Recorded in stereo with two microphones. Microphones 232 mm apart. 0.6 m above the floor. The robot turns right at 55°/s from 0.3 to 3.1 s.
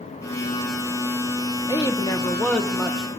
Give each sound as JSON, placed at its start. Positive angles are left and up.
{"t": 1.7, "sound": "a woman speaking", "side_deg": 15, "distance_m": 0.8}